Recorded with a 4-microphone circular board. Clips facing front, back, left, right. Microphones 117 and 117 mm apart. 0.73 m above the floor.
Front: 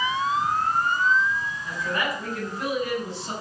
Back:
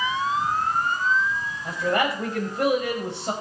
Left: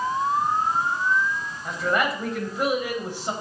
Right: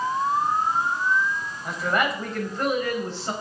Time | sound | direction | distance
1.6 | a man speaking | 175° right | 5 m